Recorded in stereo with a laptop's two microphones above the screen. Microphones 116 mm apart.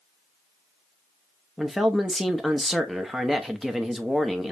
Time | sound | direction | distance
1.6 | a man speaking | centre (ahead or behind) | 0.9 m